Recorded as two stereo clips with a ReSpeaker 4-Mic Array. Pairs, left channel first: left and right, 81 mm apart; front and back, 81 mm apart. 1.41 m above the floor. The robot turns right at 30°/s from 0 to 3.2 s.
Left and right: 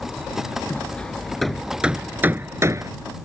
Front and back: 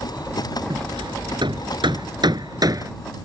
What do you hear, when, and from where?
0.7 s hammering: 155° left; by 2.9 s 135° right